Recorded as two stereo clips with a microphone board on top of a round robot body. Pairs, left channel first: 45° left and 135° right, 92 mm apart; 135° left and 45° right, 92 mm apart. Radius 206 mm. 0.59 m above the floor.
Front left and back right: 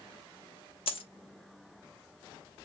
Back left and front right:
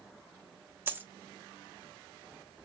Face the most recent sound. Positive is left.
turn(degrees=25)